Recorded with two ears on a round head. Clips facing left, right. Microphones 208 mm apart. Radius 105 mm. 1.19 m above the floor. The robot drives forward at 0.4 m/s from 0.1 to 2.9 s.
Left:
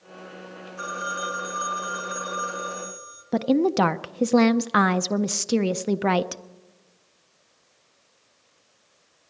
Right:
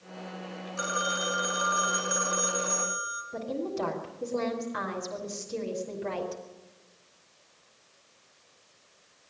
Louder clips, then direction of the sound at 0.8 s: Right 1 dB; 60° right (ahead or behind).